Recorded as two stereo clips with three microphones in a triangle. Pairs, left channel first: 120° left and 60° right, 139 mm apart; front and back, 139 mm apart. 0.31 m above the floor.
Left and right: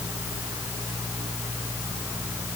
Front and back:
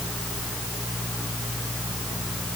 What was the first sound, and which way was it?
Only background noise.